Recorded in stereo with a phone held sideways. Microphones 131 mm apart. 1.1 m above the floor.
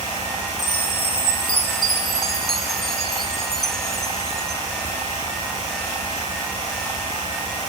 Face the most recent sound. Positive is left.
turn(degrees=0)  # may be behind; listen again after turning